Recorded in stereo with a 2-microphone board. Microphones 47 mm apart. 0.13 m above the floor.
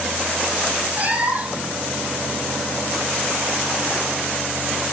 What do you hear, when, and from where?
1.0 s a cat meowing: 35° right (ahead or behind), 2.5 m